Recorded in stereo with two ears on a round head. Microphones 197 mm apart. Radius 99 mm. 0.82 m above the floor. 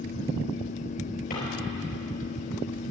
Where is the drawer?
45° left (ahead or behind), 5 m.